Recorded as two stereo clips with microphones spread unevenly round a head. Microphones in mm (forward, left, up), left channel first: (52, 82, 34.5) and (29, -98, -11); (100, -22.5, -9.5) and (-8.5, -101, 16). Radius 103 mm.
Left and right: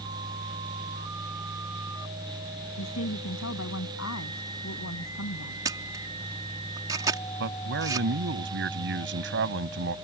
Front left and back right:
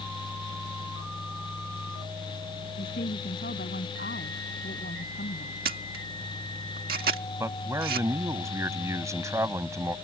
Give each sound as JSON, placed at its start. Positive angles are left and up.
{"t": 2.8, "sound": "a woman speaking", "azimuth_deg": 90}
{"t": 5.7, "sound": "a camera shutter", "azimuth_deg": -175}
{"t": 7.4, "sound": "a man speaking", "azimuth_deg": -75}